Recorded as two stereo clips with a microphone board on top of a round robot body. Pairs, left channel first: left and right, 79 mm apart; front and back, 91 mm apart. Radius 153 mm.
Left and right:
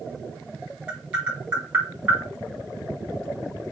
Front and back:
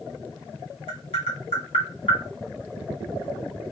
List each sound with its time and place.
0.9 s tapping: 15° right, 2 m